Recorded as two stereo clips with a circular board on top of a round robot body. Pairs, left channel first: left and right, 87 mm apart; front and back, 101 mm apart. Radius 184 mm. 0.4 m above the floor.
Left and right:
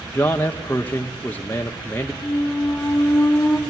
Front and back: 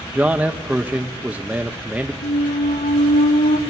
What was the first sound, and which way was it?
A man speaking, 120° left.